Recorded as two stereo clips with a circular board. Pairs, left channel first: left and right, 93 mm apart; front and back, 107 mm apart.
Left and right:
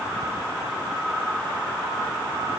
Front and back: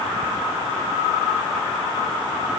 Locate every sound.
Only background noise.